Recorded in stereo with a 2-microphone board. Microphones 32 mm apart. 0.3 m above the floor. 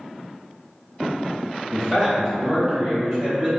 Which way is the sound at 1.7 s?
5° right (ahead or behind).